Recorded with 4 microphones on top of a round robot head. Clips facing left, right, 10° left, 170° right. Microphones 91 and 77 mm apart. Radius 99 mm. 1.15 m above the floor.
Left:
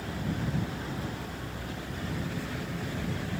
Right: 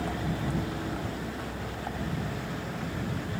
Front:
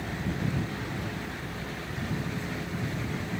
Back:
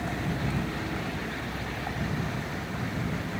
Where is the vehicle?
110° right; by 3.4 s 130° right.